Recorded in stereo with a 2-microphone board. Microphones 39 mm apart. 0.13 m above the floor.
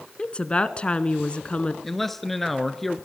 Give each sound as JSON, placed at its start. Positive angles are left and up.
{"t": 0.2, "sound": "a woman speaking", "side_deg": 25, "distance_m": 1.2}
{"t": 1.8, "sound": "a man speaking", "side_deg": 5, "distance_m": 1.7}